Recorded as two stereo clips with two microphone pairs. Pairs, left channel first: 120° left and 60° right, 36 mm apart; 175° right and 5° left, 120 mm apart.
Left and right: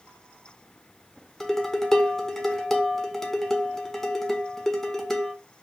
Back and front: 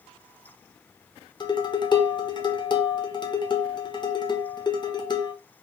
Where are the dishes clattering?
170° right, 0.7 m.